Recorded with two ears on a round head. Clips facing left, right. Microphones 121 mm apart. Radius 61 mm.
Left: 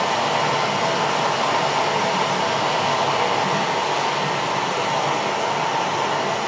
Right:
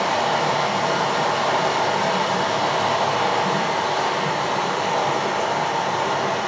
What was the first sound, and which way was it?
Running water, 25° left (ahead or behind).